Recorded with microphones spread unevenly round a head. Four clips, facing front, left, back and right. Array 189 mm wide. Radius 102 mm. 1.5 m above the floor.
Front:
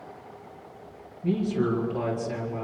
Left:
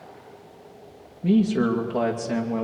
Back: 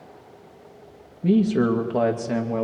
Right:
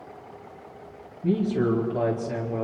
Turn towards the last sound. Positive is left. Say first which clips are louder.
# left 3 dB, back 6 dB
turn(degrees=165)